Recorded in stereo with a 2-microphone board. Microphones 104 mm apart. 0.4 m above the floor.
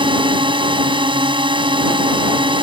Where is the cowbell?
No cowbell in this recording.